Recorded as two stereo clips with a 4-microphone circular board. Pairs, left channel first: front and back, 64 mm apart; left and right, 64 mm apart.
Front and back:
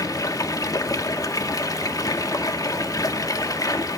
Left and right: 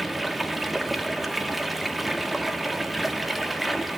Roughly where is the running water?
Ahead.